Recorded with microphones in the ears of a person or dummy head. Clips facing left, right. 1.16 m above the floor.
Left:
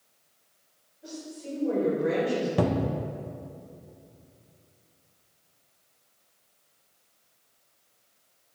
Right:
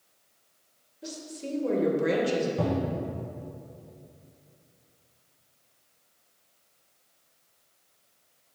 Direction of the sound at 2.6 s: 75° left (ahead or behind).